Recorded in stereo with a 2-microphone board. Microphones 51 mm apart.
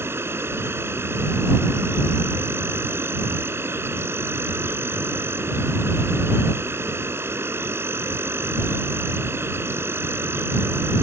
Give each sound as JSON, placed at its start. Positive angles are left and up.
{"t": 0.0, "sound": "an insect", "side_deg": -55}